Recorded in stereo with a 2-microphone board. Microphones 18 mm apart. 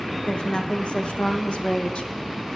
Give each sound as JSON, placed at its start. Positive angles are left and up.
{"t": 0.3, "sound": "a woman speaking", "side_deg": 75, "distance_m": 6.5}